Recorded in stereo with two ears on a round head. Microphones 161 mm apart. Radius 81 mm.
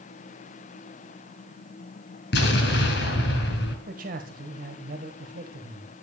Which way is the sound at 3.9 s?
50° right (ahead or behind).